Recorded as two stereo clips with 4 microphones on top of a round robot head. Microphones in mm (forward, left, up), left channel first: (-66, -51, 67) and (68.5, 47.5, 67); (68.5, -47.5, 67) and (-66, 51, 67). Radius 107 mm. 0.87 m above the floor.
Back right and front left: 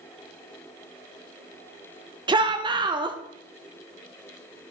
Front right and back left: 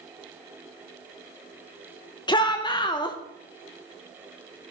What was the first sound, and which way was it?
A shout, straight ahead.